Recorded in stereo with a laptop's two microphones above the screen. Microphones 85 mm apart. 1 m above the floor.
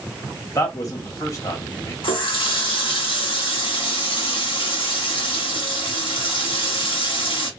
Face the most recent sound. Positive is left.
turn(degrees=80)